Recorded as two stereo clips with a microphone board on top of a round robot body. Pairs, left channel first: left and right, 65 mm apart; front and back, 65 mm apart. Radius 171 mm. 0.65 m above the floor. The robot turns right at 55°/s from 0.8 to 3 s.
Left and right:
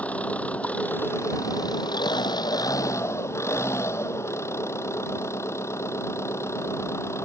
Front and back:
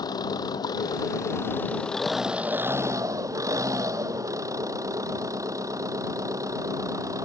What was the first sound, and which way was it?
An engine running, 20° left.